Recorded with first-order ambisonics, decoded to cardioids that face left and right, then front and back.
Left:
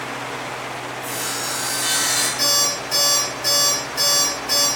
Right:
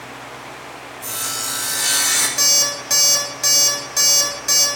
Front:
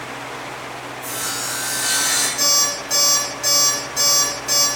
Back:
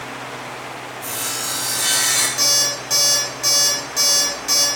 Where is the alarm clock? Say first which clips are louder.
Right 2 dB, even; 100° right, 2 m.